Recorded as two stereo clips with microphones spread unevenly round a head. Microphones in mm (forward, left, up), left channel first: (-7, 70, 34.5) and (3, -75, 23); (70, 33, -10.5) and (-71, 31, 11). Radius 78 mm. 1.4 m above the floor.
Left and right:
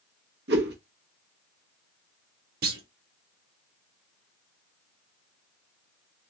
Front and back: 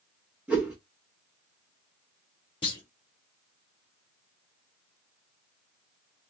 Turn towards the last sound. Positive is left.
turn(degrees=-65)